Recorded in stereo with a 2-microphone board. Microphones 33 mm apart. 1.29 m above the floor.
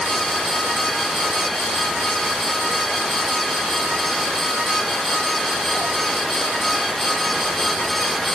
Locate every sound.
Only background noise.